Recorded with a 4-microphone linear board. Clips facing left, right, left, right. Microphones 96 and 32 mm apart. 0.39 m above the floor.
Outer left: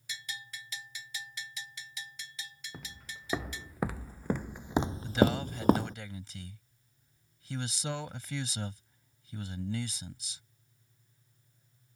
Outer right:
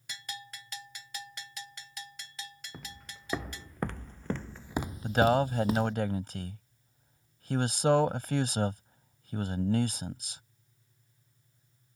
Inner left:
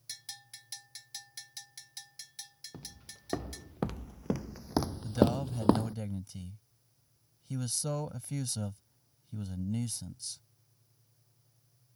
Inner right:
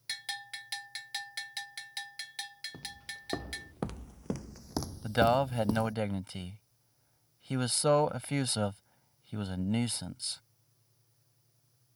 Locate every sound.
0.1 s a bell: 55° right (ahead or behind)
2.7 s footsteps: centre (ahead or behind); by 6.0 s 40° left (ahead or behind)
5.0 s a man speaking: 55° right (ahead or behind)